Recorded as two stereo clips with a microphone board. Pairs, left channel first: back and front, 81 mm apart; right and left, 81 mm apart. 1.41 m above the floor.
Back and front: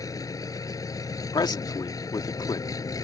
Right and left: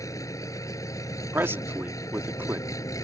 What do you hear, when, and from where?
0.0 s an engine running: 135° right
1.3 s a man speaking: 150° left